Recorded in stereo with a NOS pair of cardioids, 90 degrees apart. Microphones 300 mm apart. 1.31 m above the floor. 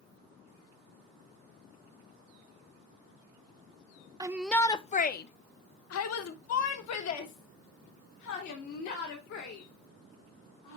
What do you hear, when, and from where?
4.2 s a shout: 15° right, 0.6 m; by 10.8 s 75° left, 3.5 m